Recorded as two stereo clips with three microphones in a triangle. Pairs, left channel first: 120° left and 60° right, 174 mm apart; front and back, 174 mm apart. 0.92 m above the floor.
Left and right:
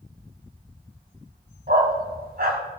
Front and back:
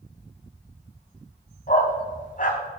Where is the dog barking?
35° right, 2.0 m.